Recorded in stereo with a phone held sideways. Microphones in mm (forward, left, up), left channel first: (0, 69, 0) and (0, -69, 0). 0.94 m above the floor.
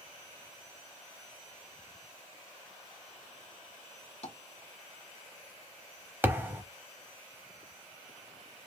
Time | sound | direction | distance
4.2 | tapping | 55° left (ahead or behind) | 1.0 m
6.2 | a thud | 20° right (ahead or behind) | 0.8 m